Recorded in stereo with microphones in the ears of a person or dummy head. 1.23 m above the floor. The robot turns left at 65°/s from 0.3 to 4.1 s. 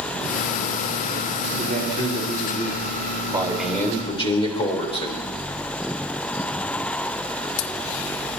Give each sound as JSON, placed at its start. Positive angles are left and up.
{"t": 1.6, "sound": "a man speaking", "azimuth_deg": -130, "distance_m": 3.5}
{"t": 3.3, "sound": "a man speaking", "azimuth_deg": -170, "distance_m": 3.5}